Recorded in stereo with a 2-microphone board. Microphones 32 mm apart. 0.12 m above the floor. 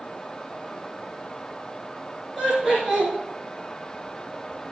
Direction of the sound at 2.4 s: 10° left (ahead or behind).